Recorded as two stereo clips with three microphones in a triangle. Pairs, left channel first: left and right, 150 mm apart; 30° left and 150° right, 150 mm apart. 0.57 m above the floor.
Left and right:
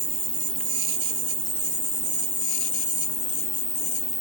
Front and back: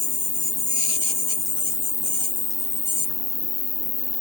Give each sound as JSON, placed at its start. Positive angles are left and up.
{"t": 0.0, "sound": "an insect", "azimuth_deg": -45, "distance_m": 8.0}